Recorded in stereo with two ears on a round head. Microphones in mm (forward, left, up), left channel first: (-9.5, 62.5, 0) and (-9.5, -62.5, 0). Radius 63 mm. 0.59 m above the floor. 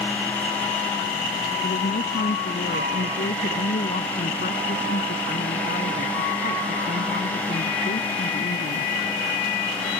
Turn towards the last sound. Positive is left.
turn(degrees=65)  # may be behind; listen again after turning